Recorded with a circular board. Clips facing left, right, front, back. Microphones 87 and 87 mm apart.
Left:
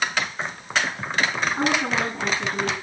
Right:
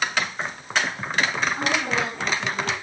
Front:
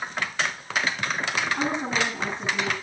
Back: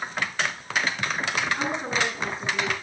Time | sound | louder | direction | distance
1.6 | a woman speaking | left 2 dB, front 1 dB | 15° left | 9.5 m